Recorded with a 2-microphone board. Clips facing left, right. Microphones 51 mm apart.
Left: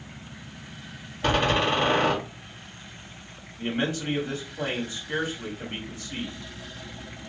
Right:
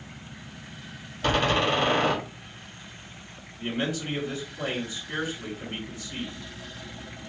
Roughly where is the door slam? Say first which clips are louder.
Left 1 dB; centre.